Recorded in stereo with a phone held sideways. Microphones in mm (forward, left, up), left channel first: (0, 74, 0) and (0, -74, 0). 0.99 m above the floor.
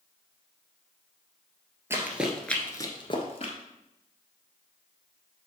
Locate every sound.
1.9 s running footsteps: 20° right (ahead or behind), 1.3 m; by 3.5 s 45° left (ahead or behind), 1.4 m